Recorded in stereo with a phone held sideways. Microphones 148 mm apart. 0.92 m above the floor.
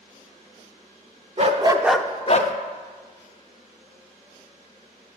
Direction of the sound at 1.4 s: 45° right (ahead or behind).